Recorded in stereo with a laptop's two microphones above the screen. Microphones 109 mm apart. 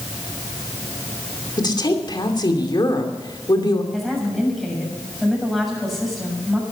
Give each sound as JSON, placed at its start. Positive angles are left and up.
{"t": 1.6, "sound": "a woman speaking", "side_deg": 40, "distance_m": 2.5}
{"t": 3.9, "sound": "a woman speaking", "side_deg": 0, "distance_m": 7.0}